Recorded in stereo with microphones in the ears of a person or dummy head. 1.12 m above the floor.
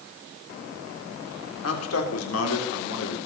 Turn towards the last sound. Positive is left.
turn(degrees=85)